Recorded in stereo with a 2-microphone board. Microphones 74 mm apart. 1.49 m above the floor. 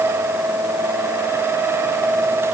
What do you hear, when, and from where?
Only background noise.